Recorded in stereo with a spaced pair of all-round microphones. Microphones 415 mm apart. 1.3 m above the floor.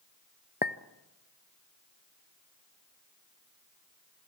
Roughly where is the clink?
Left.